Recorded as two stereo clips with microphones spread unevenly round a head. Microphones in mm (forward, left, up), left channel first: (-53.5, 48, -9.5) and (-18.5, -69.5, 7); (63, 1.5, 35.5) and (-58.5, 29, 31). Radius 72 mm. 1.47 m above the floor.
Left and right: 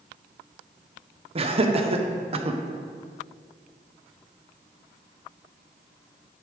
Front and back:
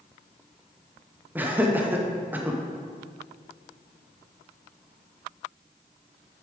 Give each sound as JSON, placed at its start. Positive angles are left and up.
{"t": 1.4, "sound": "laughter", "azimuth_deg": -115, "distance_m": 1.0}